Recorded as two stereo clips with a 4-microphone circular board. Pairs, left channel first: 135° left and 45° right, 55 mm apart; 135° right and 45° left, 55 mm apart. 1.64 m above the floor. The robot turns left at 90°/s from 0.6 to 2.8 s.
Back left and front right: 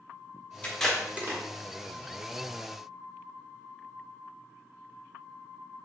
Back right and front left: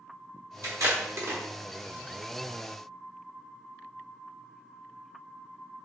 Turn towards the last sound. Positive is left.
turn(degrees=-125)